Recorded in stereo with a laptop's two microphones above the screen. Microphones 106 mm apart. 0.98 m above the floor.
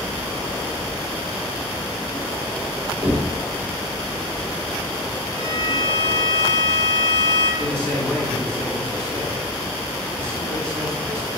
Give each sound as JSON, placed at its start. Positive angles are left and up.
{"t": 3.0, "sound": "knocking", "side_deg": -25, "distance_m": 2.0}
{"t": 5.3, "sound": "a violin", "side_deg": 55, "distance_m": 3.0}
{"t": 7.6, "sound": "a man speaking", "side_deg": 10, "distance_m": 3.0}